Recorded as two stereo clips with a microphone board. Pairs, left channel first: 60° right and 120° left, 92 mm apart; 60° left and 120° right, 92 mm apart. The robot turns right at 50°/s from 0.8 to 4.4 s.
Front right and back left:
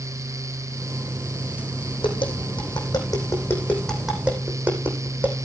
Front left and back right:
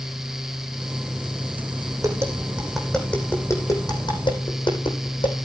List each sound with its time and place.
2.0 s tapping: 70° right, 5.5 m; by 5.5 s 50° left, 5.5 m